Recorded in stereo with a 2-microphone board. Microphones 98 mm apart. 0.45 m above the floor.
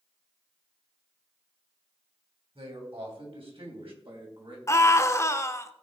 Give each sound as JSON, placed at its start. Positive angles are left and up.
{"t": 2.5, "sound": "a man speaking", "side_deg": -65, "distance_m": 3.0}
{"t": 4.7, "sound": "a scream", "side_deg": 30, "distance_m": 0.8}